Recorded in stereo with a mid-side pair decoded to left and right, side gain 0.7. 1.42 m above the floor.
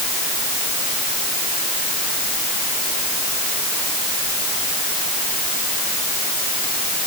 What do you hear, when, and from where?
Only background noise.